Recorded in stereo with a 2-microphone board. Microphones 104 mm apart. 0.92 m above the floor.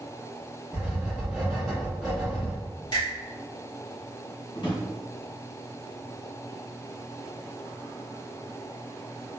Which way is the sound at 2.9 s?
50° left (ahead or behind).